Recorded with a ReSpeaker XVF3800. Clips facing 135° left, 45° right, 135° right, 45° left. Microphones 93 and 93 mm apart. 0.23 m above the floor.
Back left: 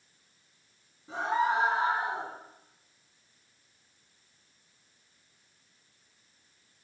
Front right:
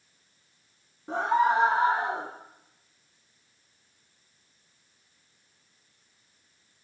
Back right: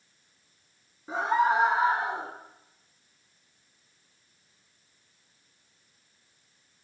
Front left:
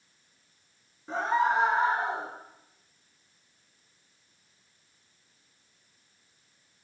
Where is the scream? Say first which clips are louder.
Front right 5 dB, back right 1 dB; 55° right, 4 m; by 2.3 s 45° right, 4.5 m.